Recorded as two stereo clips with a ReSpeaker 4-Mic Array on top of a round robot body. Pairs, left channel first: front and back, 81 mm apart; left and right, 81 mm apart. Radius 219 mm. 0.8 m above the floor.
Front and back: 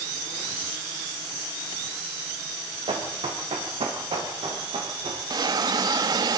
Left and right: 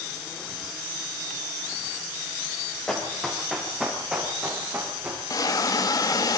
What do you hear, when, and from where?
2.9 s running footsteps: 175° left, 4.5 m; by 5.2 s 160° right, 6.5 m
5.3 s a hiss: 140° left, 0.8 m